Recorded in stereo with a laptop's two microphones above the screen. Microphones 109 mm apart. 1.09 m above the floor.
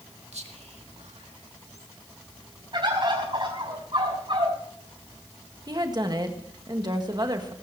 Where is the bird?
50° right (ahead or behind), 5 m.